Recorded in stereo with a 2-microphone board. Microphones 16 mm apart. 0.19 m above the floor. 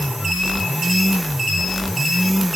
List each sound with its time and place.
Only background noise.